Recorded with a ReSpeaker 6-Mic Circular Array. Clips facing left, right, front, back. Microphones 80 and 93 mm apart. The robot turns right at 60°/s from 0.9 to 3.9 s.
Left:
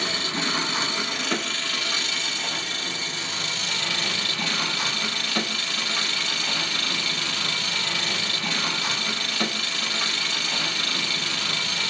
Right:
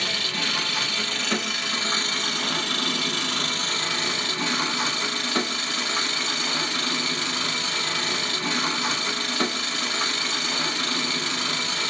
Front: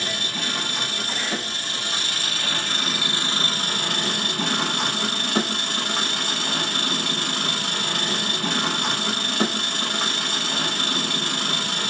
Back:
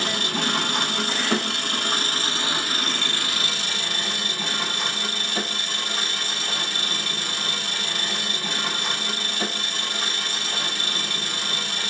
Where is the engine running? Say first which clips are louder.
Left 2 dB, back 4 dB; 155° left, 0.7 m; by 11.9 s 25° right, 0.7 m.